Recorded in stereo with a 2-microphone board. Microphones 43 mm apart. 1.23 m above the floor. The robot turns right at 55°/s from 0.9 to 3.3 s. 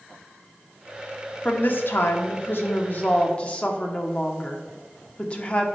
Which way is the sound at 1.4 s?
45° left.